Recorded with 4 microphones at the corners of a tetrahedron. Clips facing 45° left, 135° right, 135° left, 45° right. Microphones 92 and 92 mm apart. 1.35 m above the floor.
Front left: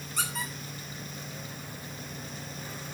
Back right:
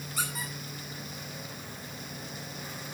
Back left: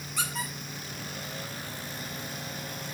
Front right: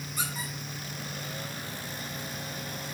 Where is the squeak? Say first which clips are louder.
Front left 2 dB, back left 2 dB; 140° left, 5 m.